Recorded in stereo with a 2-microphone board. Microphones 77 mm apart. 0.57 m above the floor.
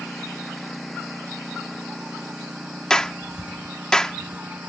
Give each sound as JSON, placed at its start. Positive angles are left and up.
{"t": 0.0, "sound": "a lawn mower", "side_deg": 5}
{"t": 2.9, "sound": "a clap", "side_deg": 10}